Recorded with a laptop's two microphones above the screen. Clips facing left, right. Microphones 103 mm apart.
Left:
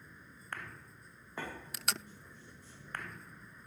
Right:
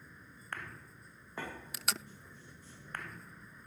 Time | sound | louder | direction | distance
0.0 | a vehicle | even | centre (ahead or behind) | ?
1.7 | tape being pulled | even | centre (ahead or behind) | ?